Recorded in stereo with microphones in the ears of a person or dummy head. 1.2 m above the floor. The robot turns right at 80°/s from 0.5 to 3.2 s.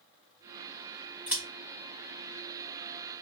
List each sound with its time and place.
1.3 s scissors: centre (ahead or behind), 1.5 m; by 1.4 s 10° right (ahead or behind), 1.5 m